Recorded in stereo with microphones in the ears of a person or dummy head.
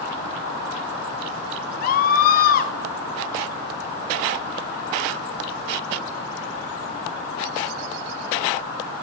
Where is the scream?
50° left (ahead or behind), 1.1 m.